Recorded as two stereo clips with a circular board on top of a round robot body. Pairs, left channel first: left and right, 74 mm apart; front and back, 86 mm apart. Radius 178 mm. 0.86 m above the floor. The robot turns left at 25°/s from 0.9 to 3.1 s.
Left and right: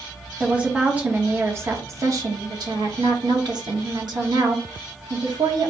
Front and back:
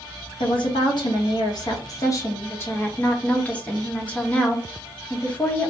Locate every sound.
0.4 s a woman speaking: 20° right, 1.3 m; by 5.7 s 75° right, 1.3 m